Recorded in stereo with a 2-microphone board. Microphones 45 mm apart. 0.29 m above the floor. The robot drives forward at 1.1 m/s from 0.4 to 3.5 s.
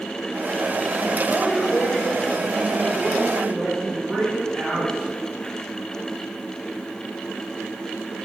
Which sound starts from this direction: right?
A woman speaking, at 1.3 s.